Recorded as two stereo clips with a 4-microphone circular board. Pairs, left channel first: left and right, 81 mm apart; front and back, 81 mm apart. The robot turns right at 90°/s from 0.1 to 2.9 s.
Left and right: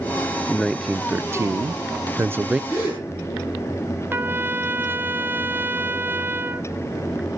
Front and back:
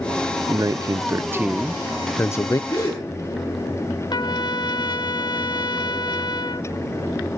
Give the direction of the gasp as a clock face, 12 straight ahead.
10 o'clock.